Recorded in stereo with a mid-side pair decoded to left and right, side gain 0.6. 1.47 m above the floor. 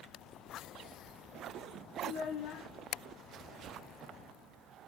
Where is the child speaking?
55° left, 0.7 m.